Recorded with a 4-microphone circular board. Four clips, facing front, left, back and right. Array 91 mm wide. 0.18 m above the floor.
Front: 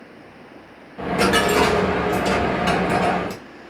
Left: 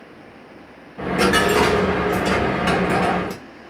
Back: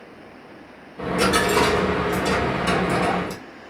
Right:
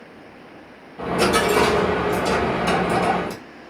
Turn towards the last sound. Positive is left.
turn(degrees=75)